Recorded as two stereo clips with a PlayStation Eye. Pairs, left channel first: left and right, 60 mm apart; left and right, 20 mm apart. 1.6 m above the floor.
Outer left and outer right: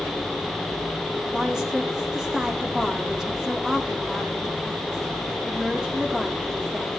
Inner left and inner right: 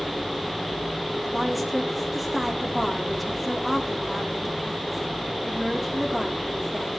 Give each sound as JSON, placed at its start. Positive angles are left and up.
{"t": 1.3, "sound": "a woman speaking", "side_deg": -10, "distance_m": 3.5}